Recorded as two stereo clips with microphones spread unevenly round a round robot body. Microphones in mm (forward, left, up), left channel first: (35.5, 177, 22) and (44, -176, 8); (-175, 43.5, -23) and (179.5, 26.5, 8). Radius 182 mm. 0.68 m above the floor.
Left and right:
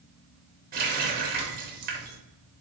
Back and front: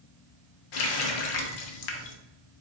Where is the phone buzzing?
No phone buzzing in this recording.